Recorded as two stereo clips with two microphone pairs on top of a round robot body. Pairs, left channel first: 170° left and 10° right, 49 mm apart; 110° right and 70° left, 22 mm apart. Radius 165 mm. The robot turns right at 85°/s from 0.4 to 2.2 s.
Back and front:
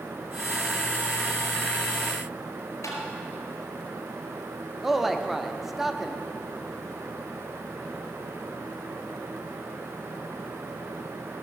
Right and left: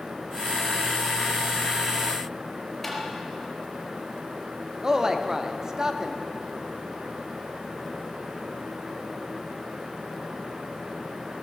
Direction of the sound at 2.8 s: 170° left.